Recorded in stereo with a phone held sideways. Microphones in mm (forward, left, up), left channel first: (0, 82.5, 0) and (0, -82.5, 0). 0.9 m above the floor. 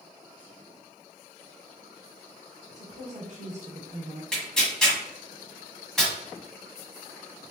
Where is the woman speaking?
50° right (ahead or behind), 1.4 m.